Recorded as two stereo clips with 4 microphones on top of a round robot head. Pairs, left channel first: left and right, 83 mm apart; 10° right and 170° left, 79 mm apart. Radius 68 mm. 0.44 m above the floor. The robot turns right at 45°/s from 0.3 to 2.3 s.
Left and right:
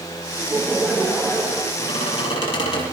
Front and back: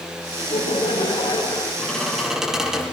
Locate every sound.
0.4 s laughter: 20° right, 8 m; by 1.7 s 40° left, 8 m
1.8 s a squeak: 65° left, 6.5 m; by 2.8 s 85° left, 6.5 m